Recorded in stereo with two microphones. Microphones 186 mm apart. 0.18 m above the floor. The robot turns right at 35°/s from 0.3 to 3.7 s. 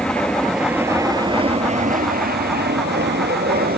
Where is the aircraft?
175° left; by 3.8 s 65° right.